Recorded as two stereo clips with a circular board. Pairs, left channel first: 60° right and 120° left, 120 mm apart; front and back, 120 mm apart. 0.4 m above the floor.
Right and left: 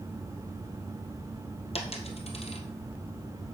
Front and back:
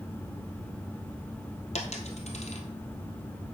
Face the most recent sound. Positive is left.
turn(degrees=-25)